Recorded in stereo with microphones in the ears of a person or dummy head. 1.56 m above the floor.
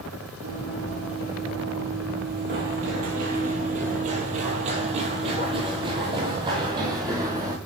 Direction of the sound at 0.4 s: 45° right (ahead or behind).